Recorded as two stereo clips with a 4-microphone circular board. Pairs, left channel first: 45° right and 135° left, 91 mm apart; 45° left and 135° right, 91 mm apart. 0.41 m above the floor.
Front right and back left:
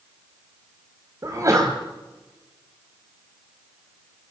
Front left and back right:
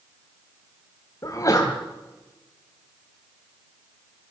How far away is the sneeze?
About 2.5 m.